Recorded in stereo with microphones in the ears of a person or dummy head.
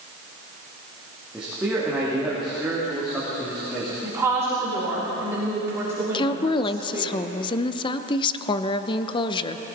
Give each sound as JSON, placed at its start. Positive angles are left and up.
{"t": 1.3, "sound": "a man speaking", "side_deg": -5, "distance_m": 3.0}
{"t": 4.0, "sound": "a woman speaking", "side_deg": -15, "distance_m": 3.0}
{"t": 6.1, "sound": "a woman speaking", "side_deg": 30, "distance_m": 0.7}